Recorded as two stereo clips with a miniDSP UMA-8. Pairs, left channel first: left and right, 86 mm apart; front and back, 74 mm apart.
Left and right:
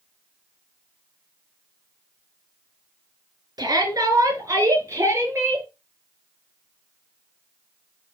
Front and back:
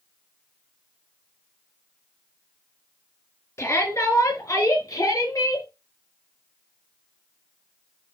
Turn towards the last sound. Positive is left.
turn(degrees=-30)